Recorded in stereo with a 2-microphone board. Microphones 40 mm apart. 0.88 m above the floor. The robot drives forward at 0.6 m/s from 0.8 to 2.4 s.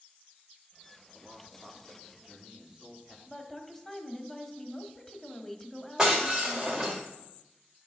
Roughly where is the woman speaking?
Centre.